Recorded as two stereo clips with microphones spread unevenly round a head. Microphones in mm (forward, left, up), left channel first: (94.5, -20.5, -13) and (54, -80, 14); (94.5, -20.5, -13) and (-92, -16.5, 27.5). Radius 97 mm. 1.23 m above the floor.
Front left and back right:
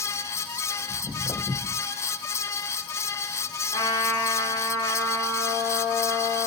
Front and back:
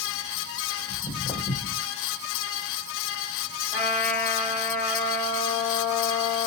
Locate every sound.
0.9 s footsteps: 95° left, 1.5 m
3.7 s a trumpet: 110° left, 1.3 m